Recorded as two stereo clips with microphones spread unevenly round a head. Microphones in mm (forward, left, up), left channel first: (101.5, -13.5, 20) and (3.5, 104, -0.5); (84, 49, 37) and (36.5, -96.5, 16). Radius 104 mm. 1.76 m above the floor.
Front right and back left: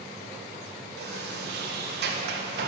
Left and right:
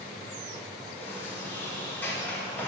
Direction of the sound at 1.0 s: 145° left.